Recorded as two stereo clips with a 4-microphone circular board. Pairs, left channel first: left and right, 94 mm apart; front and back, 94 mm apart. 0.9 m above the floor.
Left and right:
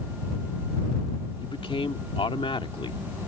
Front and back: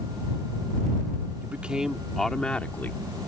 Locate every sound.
1.4 s a man speaking: 110° left; by 3.2 s 65° left